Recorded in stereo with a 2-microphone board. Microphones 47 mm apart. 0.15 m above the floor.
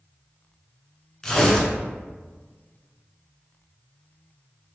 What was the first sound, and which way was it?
Tearing paper, 15° left (ahead or behind).